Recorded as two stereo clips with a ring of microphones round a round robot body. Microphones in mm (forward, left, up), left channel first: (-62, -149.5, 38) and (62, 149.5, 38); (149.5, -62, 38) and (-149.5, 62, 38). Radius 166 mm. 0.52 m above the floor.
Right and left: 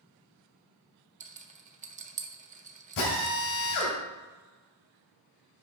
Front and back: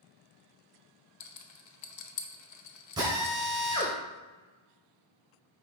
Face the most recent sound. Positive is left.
turn(degrees=-125)